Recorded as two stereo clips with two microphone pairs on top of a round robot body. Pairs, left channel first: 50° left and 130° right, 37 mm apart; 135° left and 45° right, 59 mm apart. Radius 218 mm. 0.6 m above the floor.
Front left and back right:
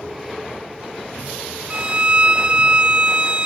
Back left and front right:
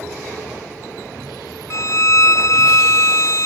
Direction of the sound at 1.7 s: 170° left.